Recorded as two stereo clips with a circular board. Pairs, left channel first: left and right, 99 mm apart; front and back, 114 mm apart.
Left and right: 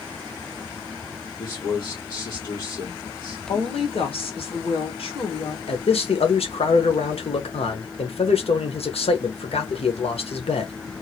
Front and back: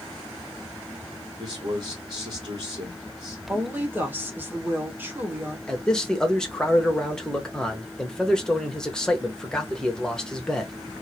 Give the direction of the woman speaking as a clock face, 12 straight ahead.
8 o'clock.